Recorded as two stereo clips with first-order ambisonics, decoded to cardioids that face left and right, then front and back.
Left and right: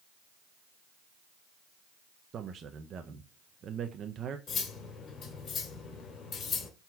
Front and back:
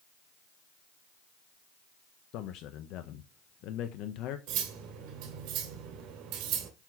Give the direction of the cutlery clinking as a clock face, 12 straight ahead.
7 o'clock.